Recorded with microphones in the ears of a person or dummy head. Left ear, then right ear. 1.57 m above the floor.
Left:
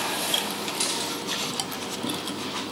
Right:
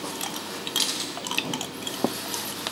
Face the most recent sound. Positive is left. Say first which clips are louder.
# right 1 dB
turn(degrees=-60)  # may be behind; listen again after turning